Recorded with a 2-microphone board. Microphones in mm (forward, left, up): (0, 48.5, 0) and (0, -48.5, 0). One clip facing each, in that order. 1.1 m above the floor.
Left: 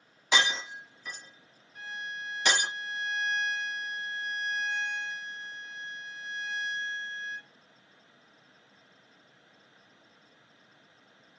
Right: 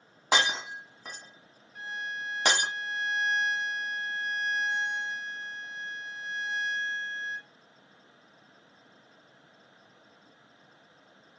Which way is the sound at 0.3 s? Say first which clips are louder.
Right 1 dB; 50° right (ahead or behind).